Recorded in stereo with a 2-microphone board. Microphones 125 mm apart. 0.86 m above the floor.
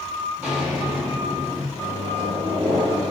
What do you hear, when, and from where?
0.4 s footsteps: 15° right (ahead or behind), 3.5 m; by 1.6 s 20° right (ahead or behind), 4 m
1.7 s a microwave: 45° right (ahead or behind), 4 m